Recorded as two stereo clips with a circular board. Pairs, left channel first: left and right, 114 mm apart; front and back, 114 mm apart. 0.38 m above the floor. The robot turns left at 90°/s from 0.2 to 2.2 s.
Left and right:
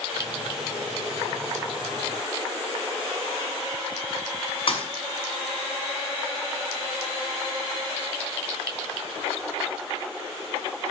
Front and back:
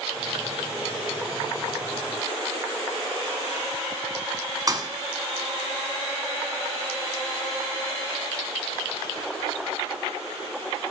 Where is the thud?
125° left, 1.0 m.